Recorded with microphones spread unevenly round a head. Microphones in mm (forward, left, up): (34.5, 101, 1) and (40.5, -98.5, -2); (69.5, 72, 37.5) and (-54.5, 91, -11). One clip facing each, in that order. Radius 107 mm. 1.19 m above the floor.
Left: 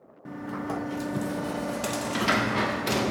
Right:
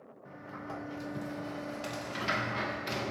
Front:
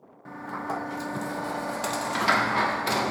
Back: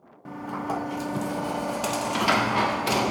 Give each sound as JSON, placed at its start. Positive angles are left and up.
{"t": 0.2, "sound": "a sliding door", "azimuth_deg": 85, "distance_m": 0.5}